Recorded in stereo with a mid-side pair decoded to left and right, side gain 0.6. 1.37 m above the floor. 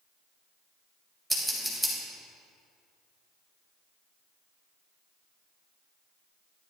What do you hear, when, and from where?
1.3 s scissors: straight ahead, 3.5 m